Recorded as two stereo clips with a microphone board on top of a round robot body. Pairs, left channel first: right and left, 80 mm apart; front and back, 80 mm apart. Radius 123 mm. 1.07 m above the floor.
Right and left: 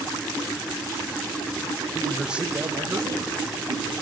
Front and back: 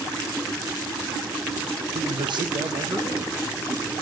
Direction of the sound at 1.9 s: 165° right.